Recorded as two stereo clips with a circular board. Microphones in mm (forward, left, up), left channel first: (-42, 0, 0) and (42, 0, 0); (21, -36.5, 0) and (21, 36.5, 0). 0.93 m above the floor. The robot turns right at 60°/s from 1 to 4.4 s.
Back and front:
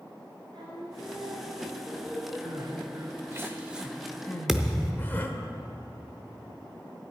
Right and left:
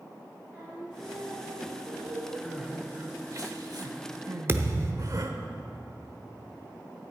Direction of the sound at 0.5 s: 25° left.